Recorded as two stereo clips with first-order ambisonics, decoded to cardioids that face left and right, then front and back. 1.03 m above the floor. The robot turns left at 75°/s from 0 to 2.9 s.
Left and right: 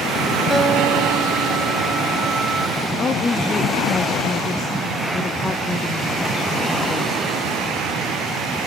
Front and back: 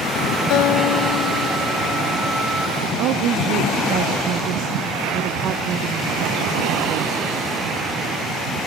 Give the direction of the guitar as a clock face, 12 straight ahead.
12 o'clock.